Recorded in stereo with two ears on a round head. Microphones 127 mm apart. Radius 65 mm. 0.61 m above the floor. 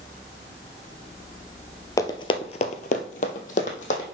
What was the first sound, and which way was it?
Running footsteps, 25° left (ahead or behind).